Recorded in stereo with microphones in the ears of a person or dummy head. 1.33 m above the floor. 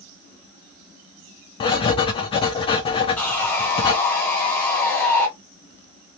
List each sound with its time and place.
1.6 s writing: 25° left (ahead or behind), 0.6 m
3.2 s sawing: 5° left (ahead or behind), 1.1 m